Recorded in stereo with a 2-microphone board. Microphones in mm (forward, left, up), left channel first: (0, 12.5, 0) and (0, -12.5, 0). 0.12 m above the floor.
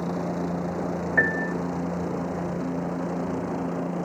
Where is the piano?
5° left (ahead or behind).